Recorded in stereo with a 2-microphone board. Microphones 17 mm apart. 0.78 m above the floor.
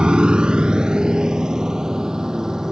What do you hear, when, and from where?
0.0 s a motorcycle: 70° right (ahead or behind); by 2.7 s 40° right (ahead or behind)